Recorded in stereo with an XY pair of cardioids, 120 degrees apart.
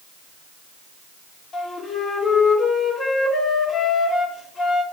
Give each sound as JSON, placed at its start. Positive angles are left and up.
{"t": 1.5, "sound": "a flute", "azimuth_deg": 45, "distance_m": 2.0}